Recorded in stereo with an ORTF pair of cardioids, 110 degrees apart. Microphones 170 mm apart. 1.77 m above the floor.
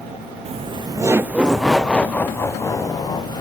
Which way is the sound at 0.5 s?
40° right.